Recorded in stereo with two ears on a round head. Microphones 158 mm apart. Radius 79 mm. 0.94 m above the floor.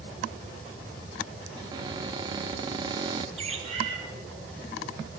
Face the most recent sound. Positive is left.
turn(degrees=-40)  # may be behind; listen again after turning